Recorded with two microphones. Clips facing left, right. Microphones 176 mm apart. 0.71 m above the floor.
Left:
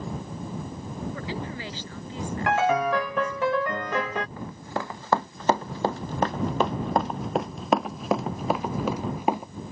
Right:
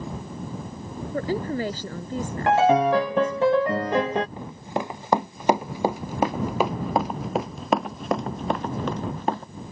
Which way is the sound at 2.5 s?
30° right (ahead or behind).